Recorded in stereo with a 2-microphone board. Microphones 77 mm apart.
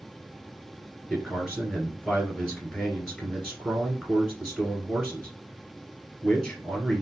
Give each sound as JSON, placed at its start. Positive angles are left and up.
{"t": 1.1, "sound": "a man speaking", "side_deg": 0, "distance_m": 1.5}